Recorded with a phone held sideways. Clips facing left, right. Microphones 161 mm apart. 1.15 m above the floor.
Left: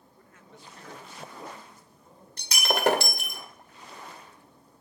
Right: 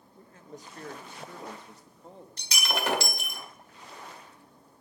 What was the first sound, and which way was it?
A man speaking, 25° right (ahead or behind).